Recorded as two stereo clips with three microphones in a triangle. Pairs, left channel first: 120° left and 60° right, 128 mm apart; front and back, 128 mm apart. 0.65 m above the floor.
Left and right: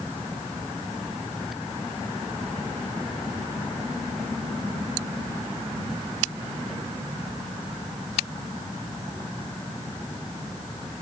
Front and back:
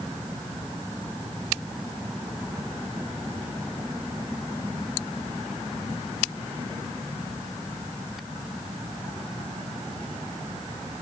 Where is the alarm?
No alarm in this recording.